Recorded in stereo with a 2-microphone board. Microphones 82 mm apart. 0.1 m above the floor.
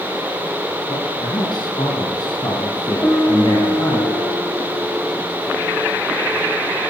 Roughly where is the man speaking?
Left.